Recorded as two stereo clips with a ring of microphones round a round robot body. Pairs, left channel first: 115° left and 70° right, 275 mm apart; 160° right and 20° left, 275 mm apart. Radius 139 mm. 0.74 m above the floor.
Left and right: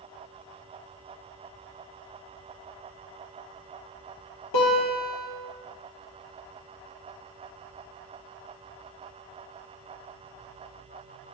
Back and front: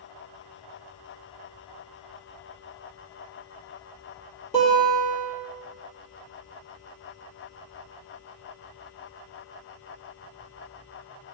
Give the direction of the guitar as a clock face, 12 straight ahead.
8 o'clock.